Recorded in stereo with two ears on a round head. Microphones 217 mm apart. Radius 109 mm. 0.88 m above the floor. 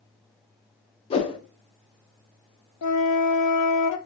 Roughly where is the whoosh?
Left.